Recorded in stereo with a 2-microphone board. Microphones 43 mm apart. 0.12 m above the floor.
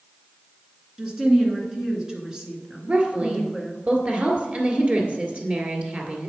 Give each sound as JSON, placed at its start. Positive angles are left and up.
{"t": 1.0, "sound": "a woman speaking", "side_deg": -15, "distance_m": 1.7}
{"t": 2.9, "sound": "a woman speaking", "side_deg": -35, "distance_m": 1.8}